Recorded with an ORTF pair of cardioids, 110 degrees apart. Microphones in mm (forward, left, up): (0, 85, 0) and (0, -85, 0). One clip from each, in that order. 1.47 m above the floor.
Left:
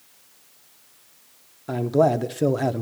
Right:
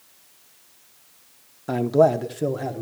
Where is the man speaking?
15° right, 0.7 m; by 2.8 s 40° left, 0.8 m.